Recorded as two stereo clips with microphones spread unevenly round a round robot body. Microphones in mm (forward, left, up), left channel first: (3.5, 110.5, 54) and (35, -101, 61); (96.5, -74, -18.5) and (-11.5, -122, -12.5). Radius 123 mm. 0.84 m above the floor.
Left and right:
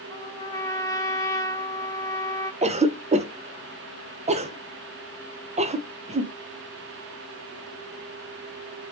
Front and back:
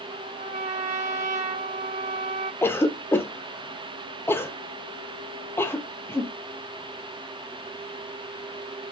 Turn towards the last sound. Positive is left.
turn(degrees=-35)